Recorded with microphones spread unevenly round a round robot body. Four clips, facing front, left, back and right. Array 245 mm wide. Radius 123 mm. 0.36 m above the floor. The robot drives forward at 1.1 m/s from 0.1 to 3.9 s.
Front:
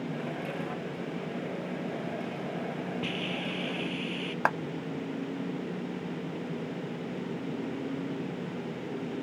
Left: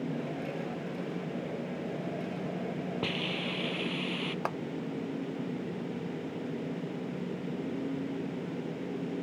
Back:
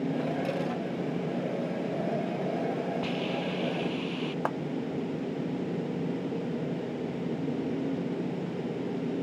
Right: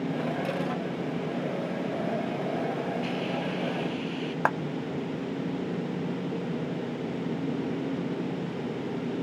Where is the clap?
50° right.